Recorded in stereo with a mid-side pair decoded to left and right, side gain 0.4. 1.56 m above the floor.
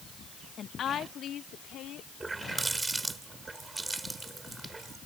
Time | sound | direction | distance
0.6 | a woman speaking | 60° left | ?
2.2 | a running tap | 25° right | ?